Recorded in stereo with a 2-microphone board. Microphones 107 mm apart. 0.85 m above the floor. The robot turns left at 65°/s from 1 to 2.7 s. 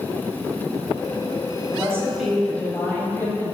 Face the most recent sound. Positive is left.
turn(degrees=155)